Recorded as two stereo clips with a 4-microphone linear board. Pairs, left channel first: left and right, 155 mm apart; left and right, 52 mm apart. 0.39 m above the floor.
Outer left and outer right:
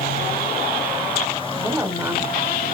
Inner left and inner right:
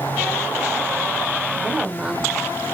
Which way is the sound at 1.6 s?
20° right (ahead or behind).